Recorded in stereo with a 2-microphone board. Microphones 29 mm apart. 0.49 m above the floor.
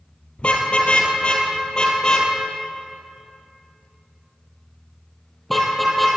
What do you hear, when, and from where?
0.4 s a car horn: 45° left (ahead or behind), 4.5 m; by 6.1 s 5° left (ahead or behind), 5.5 m